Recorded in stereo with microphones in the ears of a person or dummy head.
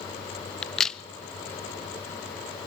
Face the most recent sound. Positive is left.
turn(degrees=5)  # may be behind; listen again after turning